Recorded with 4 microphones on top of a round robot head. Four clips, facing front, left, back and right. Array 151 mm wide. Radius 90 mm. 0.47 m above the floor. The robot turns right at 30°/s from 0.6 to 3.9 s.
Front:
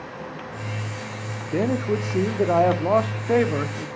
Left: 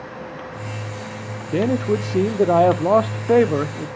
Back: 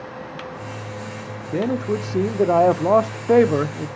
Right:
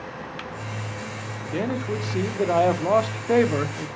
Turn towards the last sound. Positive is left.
turn(degrees=155)